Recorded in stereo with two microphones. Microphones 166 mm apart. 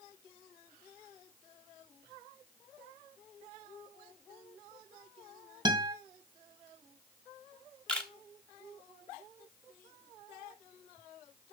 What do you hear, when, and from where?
5.7 s a guitar: 30° right (ahead or behind), 1.8 m
7.9 s a camera shutter: 5° left (ahead or behind), 1.2 m